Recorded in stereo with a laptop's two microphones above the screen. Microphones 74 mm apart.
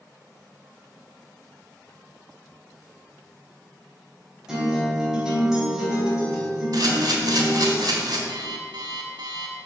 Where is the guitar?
10° right (ahead or behind), 3 m.